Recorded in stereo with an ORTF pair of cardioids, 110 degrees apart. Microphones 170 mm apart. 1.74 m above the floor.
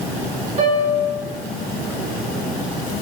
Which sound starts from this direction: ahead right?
A piano, at 0.6 s.